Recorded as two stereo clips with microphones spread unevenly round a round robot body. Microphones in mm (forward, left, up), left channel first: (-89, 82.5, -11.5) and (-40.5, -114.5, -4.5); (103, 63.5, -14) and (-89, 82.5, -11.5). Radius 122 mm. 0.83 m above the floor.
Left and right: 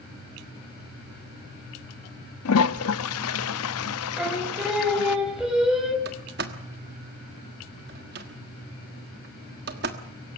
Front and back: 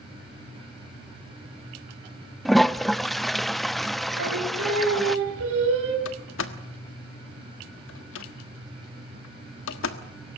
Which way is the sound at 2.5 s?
85° left.